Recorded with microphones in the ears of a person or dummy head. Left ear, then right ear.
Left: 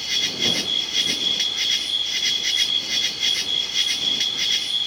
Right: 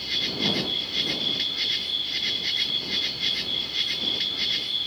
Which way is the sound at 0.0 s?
25° left (ahead or behind).